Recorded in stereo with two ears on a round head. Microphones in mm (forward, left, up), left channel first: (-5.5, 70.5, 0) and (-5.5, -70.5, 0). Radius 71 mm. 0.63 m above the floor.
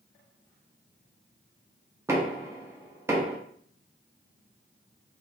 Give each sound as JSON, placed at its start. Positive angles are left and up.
{"t": 2.1, "sound": "knocking", "side_deg": -15, "distance_m": 0.6}